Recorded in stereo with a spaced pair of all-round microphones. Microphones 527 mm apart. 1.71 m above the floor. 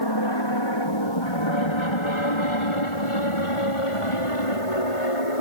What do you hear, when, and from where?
0.0 s an aircraft: 45° left (ahead or behind); by 5.4 s 70° left (ahead or behind)